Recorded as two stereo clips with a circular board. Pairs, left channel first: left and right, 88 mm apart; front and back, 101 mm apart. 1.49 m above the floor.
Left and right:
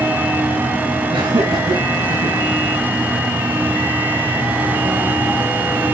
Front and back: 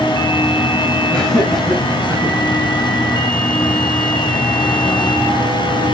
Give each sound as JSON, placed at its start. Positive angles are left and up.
{"t": 1.1, "sound": "laughter", "azimuth_deg": -85, "distance_m": 8.0}